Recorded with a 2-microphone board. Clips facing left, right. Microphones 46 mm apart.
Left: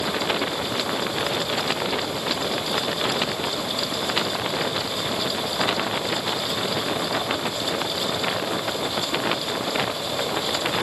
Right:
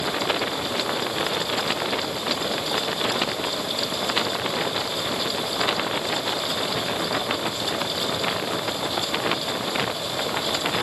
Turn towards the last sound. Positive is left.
No sound to turn to.